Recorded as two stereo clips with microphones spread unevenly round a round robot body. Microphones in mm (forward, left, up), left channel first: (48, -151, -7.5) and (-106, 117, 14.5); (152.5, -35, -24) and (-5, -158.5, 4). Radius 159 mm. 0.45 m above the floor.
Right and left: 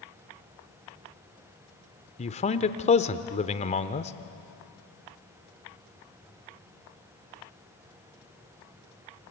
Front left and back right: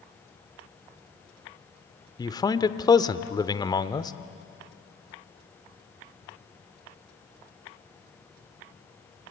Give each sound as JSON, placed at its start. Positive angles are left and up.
{"t": 2.2, "sound": "a man speaking", "azimuth_deg": -10, "distance_m": 0.9}